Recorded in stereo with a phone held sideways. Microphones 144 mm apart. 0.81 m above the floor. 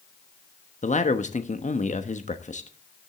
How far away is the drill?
I don't hear a drill.